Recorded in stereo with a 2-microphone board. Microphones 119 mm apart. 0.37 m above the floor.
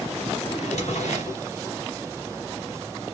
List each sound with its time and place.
0.5 s a drawer: 75° left (ahead or behind), 1.4 m